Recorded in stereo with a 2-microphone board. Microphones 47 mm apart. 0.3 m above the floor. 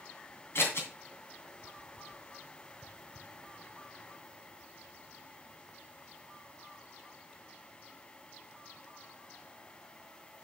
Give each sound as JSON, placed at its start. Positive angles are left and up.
{"t": 0.6, "sound": "scissors", "side_deg": 60, "distance_m": 2.5}